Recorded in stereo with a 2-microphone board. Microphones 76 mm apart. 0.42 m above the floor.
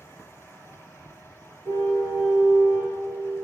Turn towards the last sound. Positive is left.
turn(degrees=-50)  # may be behind; listen again after turning